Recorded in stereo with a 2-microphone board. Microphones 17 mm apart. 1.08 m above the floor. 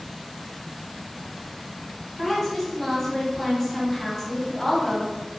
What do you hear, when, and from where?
2.2 s a woman speaking: 10° left (ahead or behind), 1.7 m